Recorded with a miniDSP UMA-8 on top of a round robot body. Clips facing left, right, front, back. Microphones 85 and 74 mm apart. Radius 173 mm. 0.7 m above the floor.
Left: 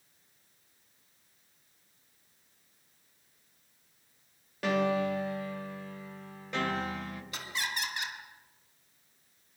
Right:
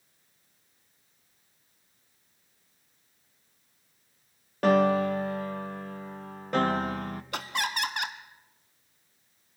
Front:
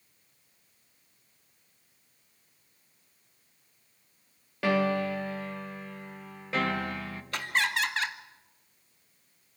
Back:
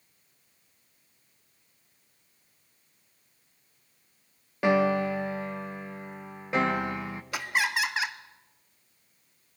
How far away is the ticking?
No ticking in this recording.